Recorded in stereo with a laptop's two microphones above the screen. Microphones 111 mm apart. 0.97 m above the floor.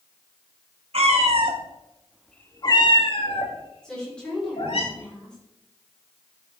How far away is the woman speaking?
About 3 m.